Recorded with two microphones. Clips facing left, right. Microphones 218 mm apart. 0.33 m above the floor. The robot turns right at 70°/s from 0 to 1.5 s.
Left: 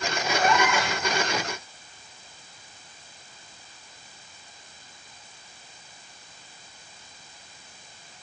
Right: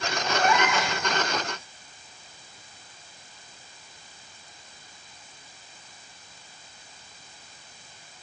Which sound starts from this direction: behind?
A cat meowing, at 0.3 s.